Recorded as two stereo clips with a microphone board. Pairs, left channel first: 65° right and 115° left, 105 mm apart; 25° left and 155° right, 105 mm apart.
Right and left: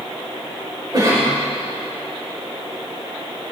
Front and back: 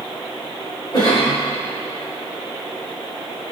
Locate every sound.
0.9 s a cough: 65° left, 4 m